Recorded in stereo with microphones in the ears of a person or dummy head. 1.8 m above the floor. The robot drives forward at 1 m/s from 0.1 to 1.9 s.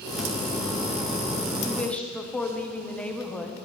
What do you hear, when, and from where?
1.6 s a woman speaking: 15° left (ahead or behind), 0.9 m